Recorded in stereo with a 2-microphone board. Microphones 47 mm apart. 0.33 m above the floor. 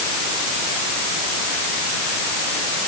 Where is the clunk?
No clunk in this recording.